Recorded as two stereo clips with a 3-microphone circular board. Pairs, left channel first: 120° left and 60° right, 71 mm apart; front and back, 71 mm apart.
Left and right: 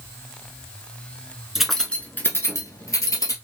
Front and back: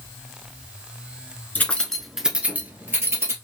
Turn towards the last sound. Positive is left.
turn(degrees=140)